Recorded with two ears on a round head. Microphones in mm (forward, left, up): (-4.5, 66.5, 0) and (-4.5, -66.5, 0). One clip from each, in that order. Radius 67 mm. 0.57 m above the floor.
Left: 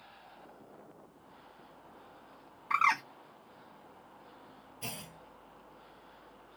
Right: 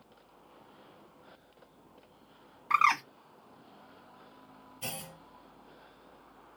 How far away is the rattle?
No rattle in this recording.